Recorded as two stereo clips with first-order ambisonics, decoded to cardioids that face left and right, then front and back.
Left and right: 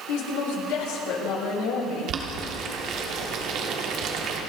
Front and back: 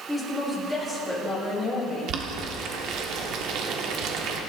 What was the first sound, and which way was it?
A woman speaking, 90° left.